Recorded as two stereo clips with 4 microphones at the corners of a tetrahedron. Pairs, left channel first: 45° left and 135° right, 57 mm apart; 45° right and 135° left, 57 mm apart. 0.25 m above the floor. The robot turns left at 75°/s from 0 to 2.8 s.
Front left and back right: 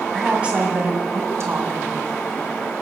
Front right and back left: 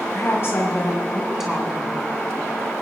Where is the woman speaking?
45° right, 2.5 m; by 2.0 s 175° left, 2.5 m.